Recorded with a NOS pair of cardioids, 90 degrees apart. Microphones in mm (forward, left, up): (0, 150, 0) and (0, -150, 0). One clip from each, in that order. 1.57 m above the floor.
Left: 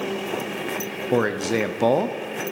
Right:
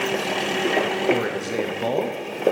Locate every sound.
1.1 s a man speaking: 30° left, 0.6 m